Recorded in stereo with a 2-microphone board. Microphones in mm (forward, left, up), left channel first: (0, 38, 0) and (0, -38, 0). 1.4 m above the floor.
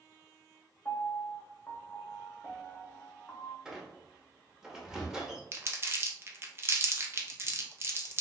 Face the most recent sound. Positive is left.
turn(degrees=-35)  # may be behind; listen again after turning